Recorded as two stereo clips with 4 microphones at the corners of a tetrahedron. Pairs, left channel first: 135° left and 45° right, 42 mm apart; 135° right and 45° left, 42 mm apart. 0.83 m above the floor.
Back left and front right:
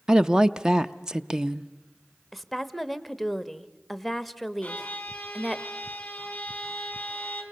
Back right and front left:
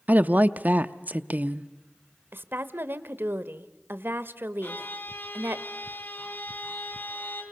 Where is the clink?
I don't hear a clink.